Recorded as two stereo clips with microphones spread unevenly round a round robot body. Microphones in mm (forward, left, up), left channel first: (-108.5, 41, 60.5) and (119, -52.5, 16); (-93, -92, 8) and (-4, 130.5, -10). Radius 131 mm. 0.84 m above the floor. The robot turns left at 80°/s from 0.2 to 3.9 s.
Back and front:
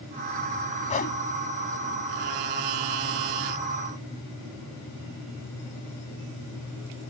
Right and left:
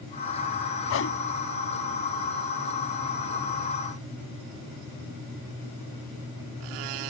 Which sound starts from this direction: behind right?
A whoosh, at 0.9 s.